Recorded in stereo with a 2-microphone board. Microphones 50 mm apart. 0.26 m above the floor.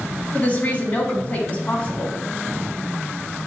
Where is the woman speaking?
30° left (ahead or behind), 1.7 m.